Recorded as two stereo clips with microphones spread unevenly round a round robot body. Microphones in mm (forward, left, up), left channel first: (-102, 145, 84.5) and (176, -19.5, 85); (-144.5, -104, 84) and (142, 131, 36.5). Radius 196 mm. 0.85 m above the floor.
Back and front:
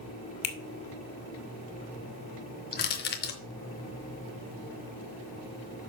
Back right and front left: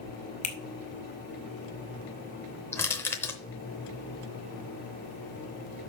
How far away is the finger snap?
About 1.9 m.